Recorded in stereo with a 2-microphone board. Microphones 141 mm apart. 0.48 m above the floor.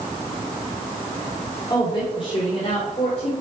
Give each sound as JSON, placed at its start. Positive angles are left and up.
{"t": 1.7, "sound": "a woman speaking", "side_deg": 30, "distance_m": 1.7}